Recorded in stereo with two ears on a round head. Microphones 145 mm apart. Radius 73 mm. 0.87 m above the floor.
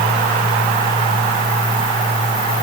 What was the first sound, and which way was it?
Only background noise.